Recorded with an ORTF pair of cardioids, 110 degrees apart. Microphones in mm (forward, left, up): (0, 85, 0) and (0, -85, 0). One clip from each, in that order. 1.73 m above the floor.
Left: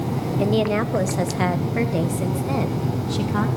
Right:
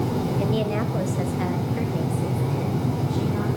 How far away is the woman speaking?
About 1.6 m.